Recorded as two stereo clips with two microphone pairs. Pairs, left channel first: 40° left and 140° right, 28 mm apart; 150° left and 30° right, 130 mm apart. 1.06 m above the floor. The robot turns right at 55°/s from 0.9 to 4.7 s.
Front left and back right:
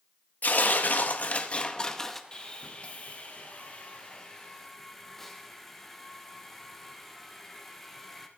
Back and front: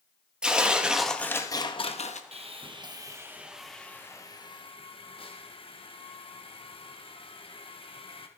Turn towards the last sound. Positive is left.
turn(degrees=115)